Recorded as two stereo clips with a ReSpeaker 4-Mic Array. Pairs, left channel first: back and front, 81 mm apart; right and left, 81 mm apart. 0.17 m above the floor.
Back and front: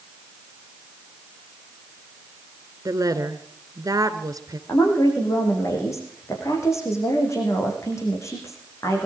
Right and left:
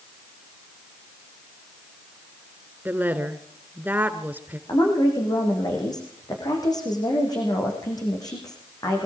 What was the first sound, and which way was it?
A woman speaking, 30° left.